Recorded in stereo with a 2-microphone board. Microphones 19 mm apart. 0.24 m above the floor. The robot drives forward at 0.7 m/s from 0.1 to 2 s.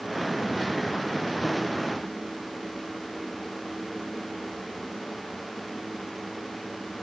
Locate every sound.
Only background noise.